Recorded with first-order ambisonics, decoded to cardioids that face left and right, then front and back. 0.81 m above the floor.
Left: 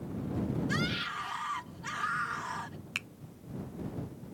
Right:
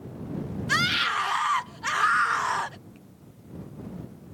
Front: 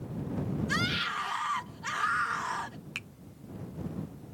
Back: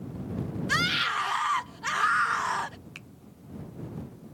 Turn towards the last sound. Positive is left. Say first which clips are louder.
# left 17 dB, front 7 dB
turn(degrees=70)